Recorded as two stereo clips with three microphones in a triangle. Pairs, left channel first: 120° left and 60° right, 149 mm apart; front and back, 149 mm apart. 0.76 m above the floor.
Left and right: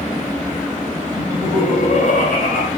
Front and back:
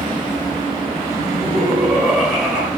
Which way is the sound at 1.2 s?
85° left.